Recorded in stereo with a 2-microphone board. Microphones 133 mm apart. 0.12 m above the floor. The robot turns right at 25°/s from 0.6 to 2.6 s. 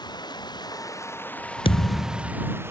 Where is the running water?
150° left; by 2.7 s 160° right.